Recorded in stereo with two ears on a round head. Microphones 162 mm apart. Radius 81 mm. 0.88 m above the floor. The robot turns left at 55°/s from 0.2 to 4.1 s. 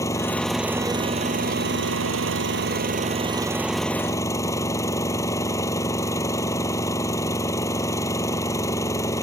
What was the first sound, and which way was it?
An engine running, 15° left.